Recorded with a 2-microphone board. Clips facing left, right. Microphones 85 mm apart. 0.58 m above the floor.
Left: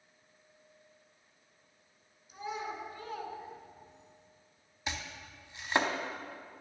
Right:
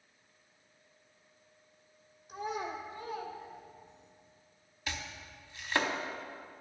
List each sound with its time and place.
2.3 s a child speaking: 60° right (ahead or behind), 1.2 m; by 4.1 s 55° left (ahead or behind), 1.3 m
4.9 s chopping: 20° left (ahead or behind), 0.7 m